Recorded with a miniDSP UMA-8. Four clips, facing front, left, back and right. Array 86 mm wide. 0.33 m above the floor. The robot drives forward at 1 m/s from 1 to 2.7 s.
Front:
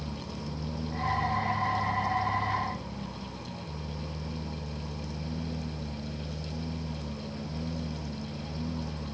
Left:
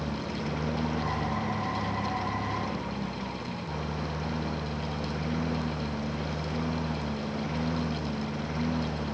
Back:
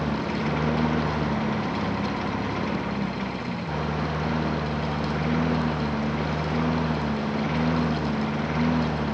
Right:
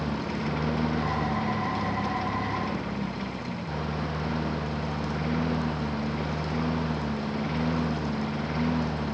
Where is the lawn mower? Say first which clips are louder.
Right 3 dB, back 12 dB; 165° right.